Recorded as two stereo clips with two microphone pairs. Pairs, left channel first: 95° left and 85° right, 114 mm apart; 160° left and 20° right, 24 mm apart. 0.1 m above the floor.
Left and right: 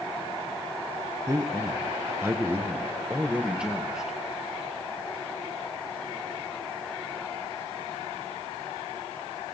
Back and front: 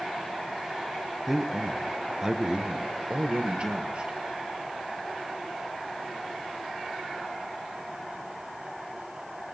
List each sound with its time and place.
1.3 s a man speaking: 95° right, 1.5 m; by 4.2 s straight ahead, 2 m